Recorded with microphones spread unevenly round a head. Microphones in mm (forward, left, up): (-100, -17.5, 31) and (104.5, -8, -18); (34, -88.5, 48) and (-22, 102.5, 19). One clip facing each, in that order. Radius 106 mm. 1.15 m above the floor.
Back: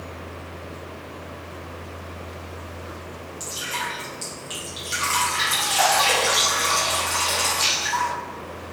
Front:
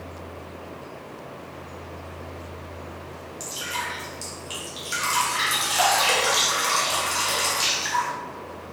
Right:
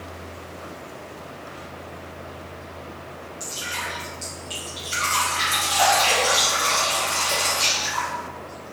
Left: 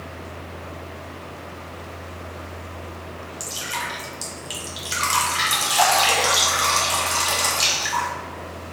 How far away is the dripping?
About 2.5 m.